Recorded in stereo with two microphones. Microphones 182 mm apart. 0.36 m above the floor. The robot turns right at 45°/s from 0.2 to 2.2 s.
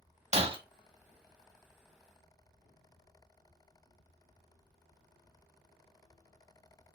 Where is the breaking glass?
35° right (ahead or behind), 0.7 m; by 0.6 s 25° right (ahead or behind), 0.7 m.